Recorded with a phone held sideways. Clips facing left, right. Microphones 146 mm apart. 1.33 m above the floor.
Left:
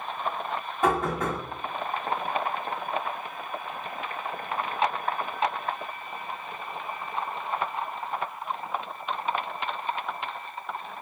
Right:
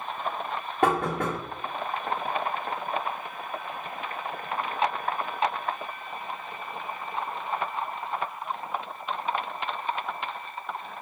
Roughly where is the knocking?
Right.